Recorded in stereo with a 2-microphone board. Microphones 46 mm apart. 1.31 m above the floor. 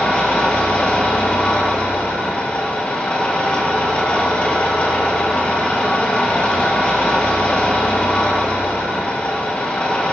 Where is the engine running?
25° left (ahead or behind), 1.7 m.